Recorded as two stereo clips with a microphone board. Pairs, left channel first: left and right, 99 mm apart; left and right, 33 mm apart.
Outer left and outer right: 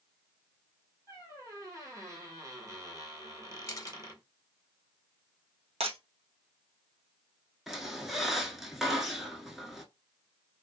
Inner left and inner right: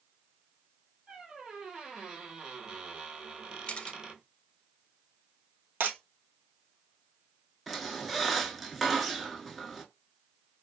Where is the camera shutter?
30° left (ahead or behind), 0.5 m.